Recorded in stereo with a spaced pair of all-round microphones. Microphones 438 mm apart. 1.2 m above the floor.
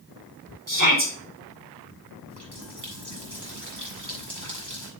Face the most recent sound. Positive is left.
turn(degrees=-65)  # may be behind; listen again after turning